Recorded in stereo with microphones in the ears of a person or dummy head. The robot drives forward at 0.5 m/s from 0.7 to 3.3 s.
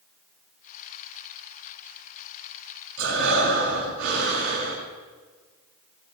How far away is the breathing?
About 6 m.